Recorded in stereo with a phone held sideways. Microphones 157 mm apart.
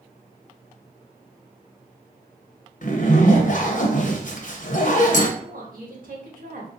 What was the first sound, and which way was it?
A zipper, 55° left (ahead or behind).